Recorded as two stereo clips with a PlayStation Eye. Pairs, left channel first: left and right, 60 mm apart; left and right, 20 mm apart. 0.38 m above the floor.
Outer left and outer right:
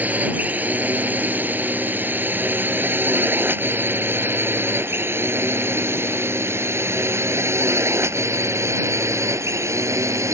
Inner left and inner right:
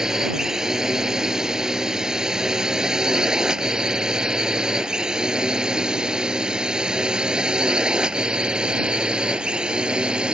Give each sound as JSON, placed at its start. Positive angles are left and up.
{"t": 0.0, "sound": "a drone", "side_deg": -25}